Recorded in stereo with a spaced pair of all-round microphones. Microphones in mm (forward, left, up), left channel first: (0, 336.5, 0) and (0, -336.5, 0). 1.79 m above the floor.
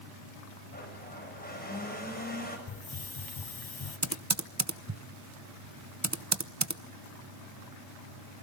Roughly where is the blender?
Centre.